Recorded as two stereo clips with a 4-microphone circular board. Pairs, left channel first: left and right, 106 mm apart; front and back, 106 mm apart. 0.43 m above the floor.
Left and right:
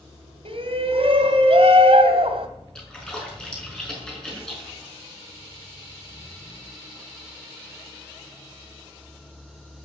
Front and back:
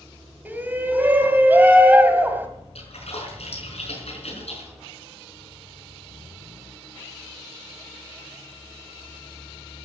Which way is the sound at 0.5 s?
110° right.